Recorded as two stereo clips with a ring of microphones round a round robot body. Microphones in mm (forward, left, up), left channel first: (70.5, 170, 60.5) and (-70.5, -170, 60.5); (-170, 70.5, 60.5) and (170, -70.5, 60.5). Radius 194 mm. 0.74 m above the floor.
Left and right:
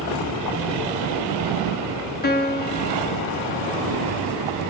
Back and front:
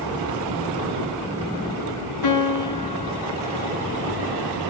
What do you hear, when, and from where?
2.2 s a piano: 130° left, 2.0 m